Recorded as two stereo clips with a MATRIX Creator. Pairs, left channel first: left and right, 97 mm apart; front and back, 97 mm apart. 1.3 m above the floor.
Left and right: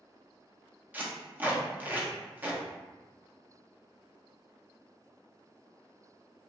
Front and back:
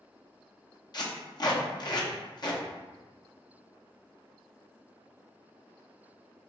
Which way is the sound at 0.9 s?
25° right.